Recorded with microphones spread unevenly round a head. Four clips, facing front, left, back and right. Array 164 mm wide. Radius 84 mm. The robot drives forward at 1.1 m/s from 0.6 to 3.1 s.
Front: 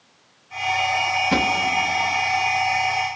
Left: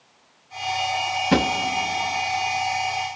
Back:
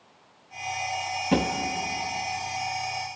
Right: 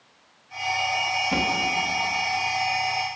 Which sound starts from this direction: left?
A drawer, at 1.3 s.